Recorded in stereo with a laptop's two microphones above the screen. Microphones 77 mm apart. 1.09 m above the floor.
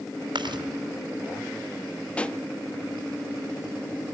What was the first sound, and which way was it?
Chewing, 85° right.